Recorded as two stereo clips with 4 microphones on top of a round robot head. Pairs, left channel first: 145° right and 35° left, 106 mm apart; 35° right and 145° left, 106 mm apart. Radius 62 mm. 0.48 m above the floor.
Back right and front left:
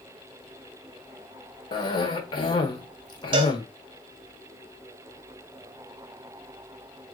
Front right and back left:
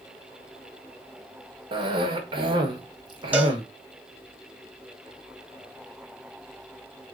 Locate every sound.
1.7 s a cough: straight behind, 1.3 m
3.3 s a cowbell: 70° left, 0.9 m